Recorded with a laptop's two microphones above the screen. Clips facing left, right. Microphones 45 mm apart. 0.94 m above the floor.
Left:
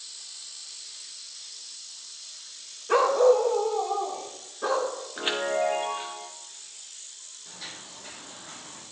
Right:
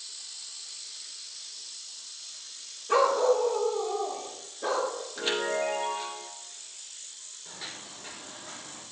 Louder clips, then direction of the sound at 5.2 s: Left 2 dB; 30° left (ahead or behind).